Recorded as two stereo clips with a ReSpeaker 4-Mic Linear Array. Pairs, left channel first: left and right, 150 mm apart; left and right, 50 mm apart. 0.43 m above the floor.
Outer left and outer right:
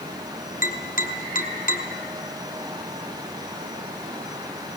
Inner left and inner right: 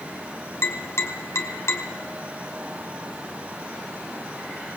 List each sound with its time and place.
0.6 s tapping: 60° left (ahead or behind), 3.5 m